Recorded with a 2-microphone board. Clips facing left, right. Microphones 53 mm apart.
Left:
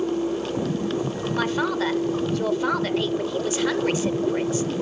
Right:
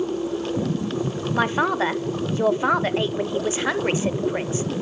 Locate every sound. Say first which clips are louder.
1.3 s a man speaking: right 3 dB; 25° right (ahead or behind), 0.8 m